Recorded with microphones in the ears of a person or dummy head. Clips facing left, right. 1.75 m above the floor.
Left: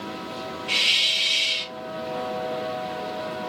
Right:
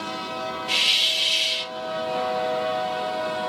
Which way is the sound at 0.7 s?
10° right (ahead or behind).